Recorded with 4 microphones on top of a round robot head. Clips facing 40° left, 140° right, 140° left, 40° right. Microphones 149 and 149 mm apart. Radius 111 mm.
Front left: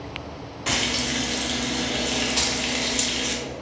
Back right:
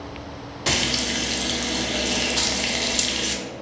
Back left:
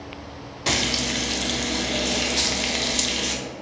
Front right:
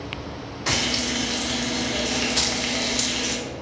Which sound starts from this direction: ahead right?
Keys jangling, at 2.4 s.